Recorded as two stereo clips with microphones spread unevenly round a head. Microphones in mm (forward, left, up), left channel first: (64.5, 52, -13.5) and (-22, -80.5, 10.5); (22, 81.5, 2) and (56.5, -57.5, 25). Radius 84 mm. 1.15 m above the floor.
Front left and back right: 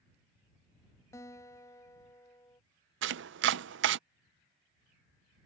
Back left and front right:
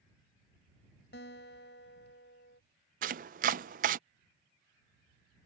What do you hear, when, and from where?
1.1 s a guitar: 130° left
3.0 s chopping: 120° right